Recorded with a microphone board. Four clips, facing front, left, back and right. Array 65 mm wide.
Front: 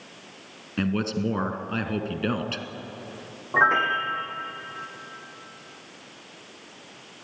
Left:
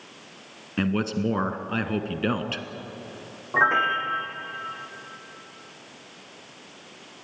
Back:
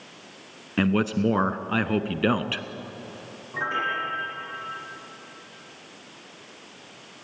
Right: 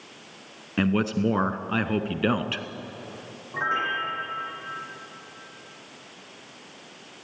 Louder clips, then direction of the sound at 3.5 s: Left 5 dB, front 7 dB; 40° left.